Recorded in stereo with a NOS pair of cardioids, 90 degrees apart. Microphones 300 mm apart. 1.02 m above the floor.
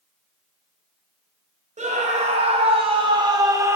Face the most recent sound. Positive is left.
turn(degrees=-10)